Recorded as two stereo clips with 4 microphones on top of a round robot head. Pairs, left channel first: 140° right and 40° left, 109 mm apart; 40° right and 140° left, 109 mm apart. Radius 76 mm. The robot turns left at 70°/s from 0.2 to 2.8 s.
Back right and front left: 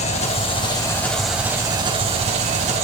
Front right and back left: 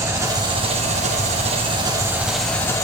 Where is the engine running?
155° right, 2 m; by 2.8 s 20° left, 2 m.